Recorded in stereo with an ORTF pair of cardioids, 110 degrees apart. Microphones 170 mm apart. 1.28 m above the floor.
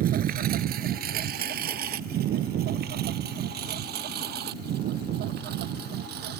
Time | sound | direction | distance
0.0 | a lawn mower | 65° right | ?